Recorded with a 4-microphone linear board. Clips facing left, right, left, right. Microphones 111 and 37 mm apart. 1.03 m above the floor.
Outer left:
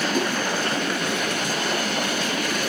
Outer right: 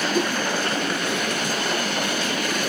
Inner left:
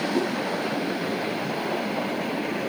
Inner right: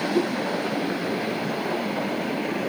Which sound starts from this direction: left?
A whoosh, at 0.1 s.